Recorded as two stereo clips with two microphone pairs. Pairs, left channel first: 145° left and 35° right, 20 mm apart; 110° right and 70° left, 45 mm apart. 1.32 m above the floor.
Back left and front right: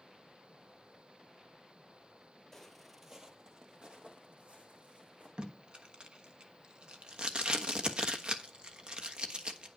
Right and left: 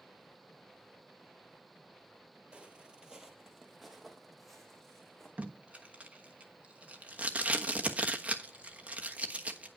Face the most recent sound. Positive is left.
turn(degrees=5)